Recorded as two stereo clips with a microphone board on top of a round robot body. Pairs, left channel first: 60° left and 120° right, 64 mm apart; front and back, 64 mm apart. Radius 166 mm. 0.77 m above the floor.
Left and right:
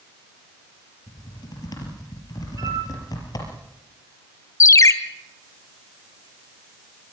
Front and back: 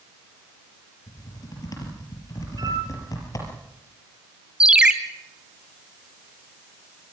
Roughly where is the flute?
Behind right.